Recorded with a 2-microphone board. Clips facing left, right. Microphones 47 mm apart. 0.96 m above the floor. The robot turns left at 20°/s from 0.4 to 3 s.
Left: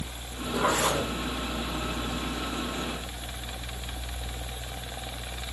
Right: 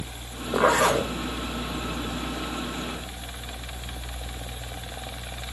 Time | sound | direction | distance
0.5 | a zipper | 85° right | 2.5 m